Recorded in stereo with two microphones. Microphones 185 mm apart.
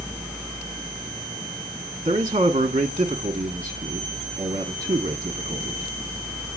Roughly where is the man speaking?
Right.